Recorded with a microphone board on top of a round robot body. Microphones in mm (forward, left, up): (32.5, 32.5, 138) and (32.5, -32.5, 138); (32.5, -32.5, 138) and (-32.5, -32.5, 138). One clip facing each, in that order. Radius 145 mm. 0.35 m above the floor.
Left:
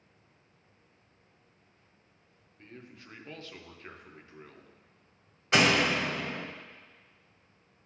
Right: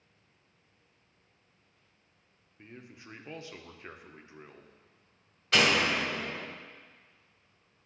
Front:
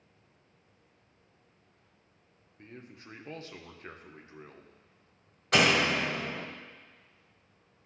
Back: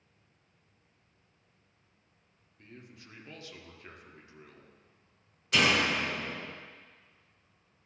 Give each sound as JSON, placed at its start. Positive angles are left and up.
{"t": 2.6, "sound": "a man speaking", "azimuth_deg": -25, "distance_m": 1.0}
{"t": 5.5, "sound": "a door slam", "azimuth_deg": 25, "distance_m": 1.6}